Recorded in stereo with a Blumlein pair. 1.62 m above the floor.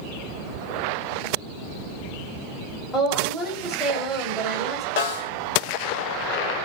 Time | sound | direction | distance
2.9 | a woman speaking | straight ahead | 1.0 m
5.0 | a snare drum | 55° left | 0.5 m